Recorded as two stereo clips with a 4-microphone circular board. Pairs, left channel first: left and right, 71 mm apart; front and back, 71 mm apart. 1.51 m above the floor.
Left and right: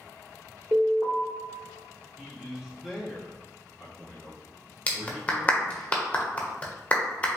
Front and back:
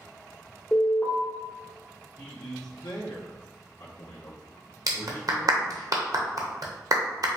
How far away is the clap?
About 0.9 m.